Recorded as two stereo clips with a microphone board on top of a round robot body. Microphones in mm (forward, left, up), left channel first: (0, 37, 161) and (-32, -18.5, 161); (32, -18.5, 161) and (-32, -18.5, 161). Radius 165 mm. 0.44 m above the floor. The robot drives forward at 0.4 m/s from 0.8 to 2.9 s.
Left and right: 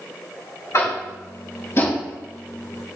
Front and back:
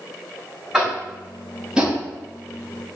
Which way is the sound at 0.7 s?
95° left.